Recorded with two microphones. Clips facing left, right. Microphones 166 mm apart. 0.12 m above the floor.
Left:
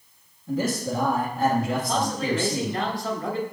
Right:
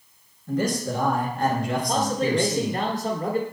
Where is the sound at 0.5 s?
5° left (ahead or behind), 1.9 m.